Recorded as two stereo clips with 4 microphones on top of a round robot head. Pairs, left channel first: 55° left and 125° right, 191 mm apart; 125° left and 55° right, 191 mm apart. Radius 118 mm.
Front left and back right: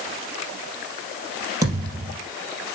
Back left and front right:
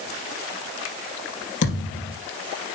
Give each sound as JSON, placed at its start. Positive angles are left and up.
{"t": 1.6, "sound": "a thud", "azimuth_deg": 160, "distance_m": 3.5}